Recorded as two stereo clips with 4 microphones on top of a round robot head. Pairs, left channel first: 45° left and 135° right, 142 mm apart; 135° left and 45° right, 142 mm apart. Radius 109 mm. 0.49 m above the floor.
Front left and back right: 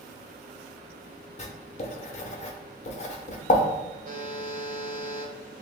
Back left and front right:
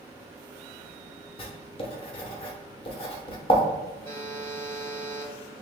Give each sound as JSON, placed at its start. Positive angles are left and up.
{"t": 1.4, "sound": "writing", "azimuth_deg": 85, "distance_m": 0.7}
{"t": 4.0, "sound": "a buzzer", "azimuth_deg": -150, "distance_m": 1.2}